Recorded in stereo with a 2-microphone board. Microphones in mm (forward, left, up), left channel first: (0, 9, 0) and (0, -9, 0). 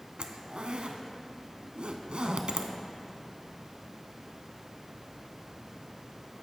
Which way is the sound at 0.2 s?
75° right (ahead or behind).